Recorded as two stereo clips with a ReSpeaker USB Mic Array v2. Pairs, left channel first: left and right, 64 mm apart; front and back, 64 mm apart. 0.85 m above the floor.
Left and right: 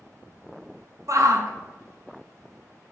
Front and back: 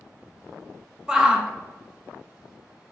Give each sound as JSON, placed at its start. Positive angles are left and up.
{"t": 1.1, "sound": "a shout", "azimuth_deg": -105, "distance_m": 0.6}